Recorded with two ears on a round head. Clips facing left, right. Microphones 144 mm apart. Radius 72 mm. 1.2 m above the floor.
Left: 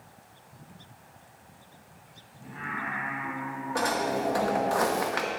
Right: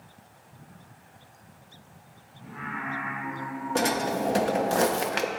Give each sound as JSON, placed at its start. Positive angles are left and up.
{"t": 2.4, "sound": "singing", "side_deg": 40, "distance_m": 3.5}
{"t": 3.8, "sound": "a drawer", "side_deg": -30, "distance_m": 0.6}